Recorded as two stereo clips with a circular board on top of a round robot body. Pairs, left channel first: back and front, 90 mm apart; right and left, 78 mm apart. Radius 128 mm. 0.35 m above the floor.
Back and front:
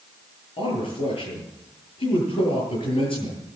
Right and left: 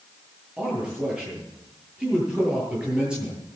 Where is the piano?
No piano in this recording.